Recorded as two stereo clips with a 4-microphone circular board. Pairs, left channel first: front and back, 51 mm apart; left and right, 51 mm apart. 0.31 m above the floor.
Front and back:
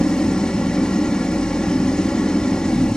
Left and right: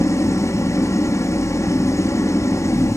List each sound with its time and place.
0.0 s an engine running: 75° left, 3.5 m